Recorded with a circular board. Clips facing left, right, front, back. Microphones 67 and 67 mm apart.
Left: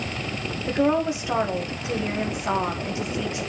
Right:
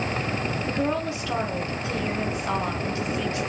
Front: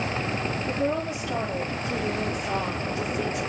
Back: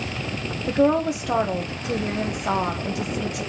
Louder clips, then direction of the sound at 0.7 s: Left 7 dB, back 10 dB; 160° left.